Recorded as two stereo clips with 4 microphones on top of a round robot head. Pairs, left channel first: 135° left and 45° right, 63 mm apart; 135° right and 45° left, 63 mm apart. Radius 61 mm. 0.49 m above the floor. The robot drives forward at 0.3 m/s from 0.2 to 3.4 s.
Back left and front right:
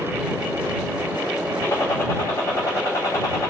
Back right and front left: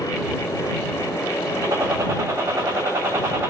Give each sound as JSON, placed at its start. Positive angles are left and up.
{"t": 1.6, "sound": "a gunshot", "azimuth_deg": 90, "distance_m": 2.5}